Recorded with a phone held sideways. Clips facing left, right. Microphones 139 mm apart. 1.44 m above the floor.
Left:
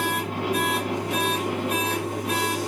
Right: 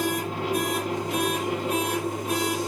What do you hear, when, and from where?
0.0 s a machine running: 65° left (ahead or behind), 2 m